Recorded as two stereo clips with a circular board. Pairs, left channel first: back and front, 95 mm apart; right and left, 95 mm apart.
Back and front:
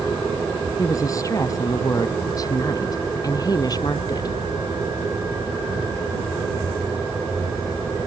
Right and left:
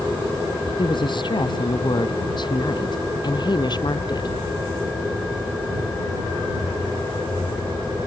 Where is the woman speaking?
125° right; by 4.3 s 130° right.